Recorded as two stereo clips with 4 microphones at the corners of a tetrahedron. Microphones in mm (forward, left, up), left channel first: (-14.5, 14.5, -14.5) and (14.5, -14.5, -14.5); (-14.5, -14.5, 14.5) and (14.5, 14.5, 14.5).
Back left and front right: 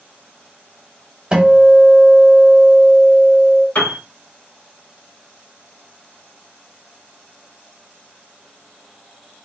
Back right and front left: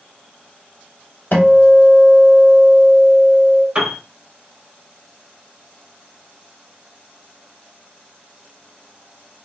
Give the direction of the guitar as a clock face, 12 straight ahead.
4 o'clock.